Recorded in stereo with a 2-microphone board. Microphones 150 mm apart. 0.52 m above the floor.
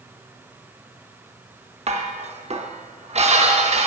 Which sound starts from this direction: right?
Dishes clattering, at 1.9 s.